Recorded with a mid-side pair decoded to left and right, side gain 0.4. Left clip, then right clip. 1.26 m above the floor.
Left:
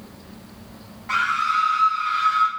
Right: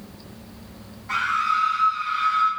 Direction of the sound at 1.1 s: 45° left.